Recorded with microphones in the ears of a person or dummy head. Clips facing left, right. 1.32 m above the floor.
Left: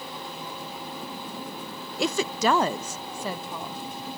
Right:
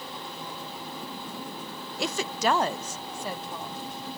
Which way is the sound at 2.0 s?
70° left (ahead or behind).